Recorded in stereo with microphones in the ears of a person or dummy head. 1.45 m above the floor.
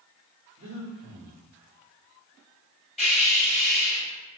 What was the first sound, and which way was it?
Breathing, 60° right (ahead or behind).